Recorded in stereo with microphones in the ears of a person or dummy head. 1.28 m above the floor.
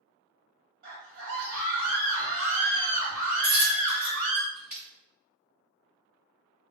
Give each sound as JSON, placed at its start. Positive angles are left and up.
{"t": 0.8, "sound": "a scream", "side_deg": -45, "distance_m": 1.0}
{"t": 3.4, "sound": "a dropped coin", "side_deg": -5, "distance_m": 1.1}